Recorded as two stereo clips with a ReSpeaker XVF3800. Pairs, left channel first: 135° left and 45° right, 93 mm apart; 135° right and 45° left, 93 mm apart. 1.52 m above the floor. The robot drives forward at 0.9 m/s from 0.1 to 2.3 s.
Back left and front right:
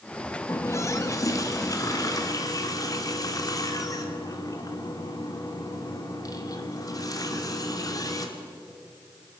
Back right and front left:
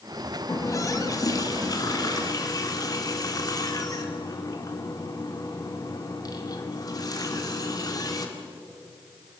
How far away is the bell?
No bell in this recording.